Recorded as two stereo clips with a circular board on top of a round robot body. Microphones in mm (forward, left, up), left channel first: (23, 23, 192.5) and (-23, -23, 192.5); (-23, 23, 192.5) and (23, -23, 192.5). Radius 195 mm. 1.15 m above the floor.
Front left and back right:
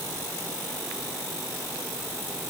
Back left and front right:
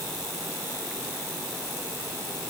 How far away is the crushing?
No crushing in this recording.